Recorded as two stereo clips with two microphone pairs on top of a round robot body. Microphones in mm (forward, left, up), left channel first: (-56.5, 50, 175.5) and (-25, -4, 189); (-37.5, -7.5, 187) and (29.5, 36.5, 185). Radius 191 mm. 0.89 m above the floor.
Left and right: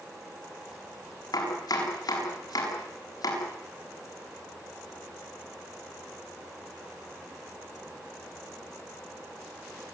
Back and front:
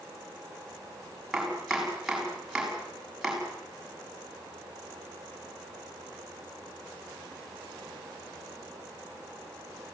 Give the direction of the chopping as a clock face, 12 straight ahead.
8 o'clock.